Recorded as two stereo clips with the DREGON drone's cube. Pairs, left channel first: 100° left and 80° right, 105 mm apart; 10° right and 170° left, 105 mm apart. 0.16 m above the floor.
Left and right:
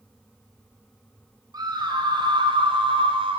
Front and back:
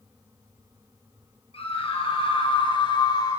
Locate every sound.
1.5 s a scream: 30° right, 3.5 m; by 3.4 s 60° right, 3 m